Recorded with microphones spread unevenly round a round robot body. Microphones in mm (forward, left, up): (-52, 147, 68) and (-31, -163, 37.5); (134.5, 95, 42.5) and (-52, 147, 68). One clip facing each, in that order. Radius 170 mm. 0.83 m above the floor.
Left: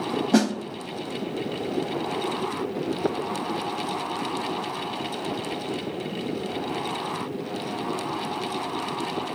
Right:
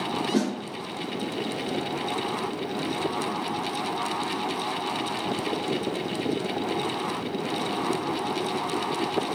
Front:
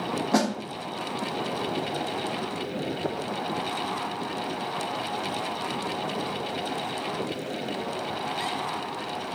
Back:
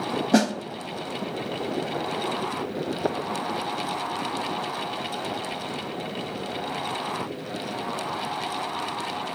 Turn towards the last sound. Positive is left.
turn(degrees=100)